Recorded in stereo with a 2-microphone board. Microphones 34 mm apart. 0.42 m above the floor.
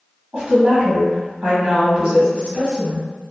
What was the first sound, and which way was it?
A woman speaking, 30° right (ahead or behind).